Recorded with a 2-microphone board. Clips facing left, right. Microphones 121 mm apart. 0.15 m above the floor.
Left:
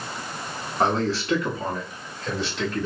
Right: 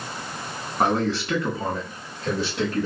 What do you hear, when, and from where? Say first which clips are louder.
0.8 s a man speaking: right 1 dB; 10° right (ahead or behind), 1.3 m; by 2.9 s 45° right (ahead or behind), 2.5 m